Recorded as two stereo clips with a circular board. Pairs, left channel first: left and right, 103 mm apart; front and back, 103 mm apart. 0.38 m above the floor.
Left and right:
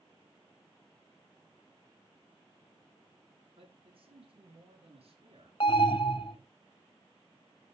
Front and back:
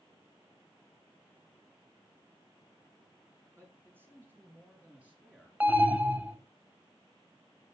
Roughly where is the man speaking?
Behind right.